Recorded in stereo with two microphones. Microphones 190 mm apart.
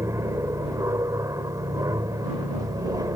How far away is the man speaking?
I don't hear a man speaking.